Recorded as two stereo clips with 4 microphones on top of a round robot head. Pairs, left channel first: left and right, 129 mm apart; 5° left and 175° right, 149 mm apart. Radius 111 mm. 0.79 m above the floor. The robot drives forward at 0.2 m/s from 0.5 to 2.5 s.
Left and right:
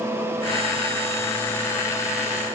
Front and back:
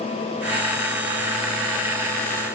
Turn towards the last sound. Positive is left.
No sound to turn to.